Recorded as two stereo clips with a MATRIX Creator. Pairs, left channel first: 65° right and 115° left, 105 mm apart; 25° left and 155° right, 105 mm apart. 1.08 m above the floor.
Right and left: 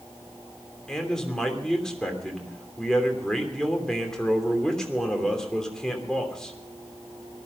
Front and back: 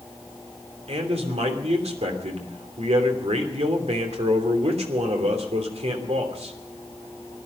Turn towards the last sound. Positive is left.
turn(degrees=-150)